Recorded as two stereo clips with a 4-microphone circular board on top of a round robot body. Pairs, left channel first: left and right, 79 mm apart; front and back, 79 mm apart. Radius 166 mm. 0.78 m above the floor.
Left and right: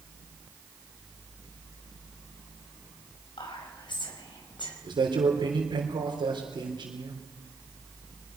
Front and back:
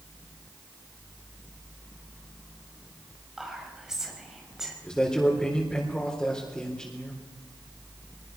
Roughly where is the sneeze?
No sneeze in this recording.